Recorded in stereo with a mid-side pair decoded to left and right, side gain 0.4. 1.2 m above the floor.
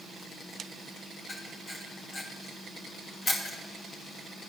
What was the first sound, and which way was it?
A camera shutter, 55° left.